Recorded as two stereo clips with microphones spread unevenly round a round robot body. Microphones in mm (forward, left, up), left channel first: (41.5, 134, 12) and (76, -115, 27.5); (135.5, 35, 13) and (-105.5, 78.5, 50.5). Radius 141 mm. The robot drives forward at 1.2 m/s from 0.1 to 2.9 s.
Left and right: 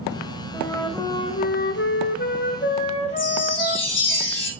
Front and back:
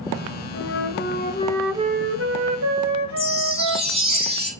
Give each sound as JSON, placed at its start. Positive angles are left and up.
{"t": 0.5, "sound": "a flute", "azimuth_deg": 15, "distance_m": 1.6}
{"t": 3.2, "sound": "a chime", "azimuth_deg": 105, "distance_m": 3.0}